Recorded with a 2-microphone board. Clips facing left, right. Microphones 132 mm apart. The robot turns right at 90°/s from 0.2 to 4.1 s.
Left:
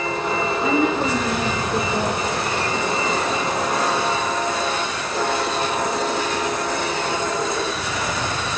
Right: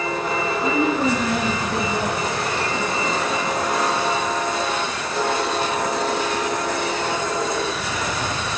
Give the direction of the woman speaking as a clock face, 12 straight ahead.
6 o'clock.